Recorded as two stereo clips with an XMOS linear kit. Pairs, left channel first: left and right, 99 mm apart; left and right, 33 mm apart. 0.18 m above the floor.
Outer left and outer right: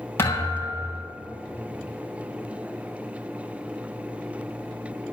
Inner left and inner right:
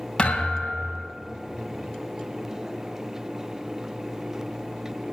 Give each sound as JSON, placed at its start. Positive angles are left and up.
{"t": 0.2, "sound": "a thud", "side_deg": 25, "distance_m": 6.0}